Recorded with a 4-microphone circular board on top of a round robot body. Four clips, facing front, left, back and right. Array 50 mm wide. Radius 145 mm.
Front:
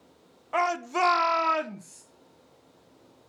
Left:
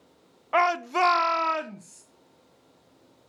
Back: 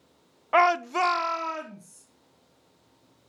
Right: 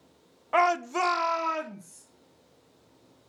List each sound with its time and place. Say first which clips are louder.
0.5 s a shout: left 1 dB, back 5 dB; 165° left, 0.9 m; by 2.0 s 35° left, 1.4 m